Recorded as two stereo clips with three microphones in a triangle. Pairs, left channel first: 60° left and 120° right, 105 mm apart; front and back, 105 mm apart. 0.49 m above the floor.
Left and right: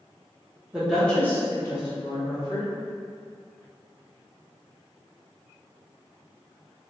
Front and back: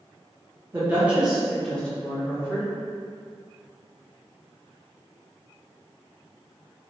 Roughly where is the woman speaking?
Behind.